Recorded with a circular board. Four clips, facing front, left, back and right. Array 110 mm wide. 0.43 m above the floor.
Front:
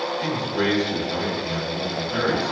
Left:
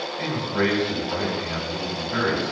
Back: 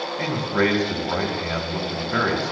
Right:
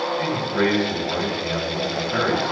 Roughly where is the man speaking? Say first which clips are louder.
Left 1 dB, back 5 dB; behind.